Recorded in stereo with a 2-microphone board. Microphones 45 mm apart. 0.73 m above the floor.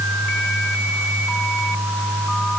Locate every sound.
Only background noise.